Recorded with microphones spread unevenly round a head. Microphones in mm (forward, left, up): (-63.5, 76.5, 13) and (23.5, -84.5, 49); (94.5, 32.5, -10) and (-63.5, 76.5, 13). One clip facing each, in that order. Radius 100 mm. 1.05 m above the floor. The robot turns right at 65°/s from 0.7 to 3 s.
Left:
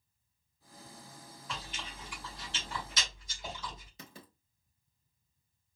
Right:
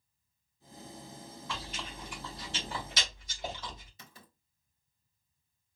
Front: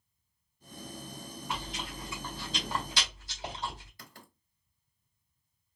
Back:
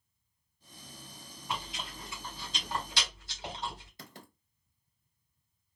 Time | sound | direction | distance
1.5 | chewing | 125° right | 3.5 m
4.0 | writing | 95° left | 1.4 m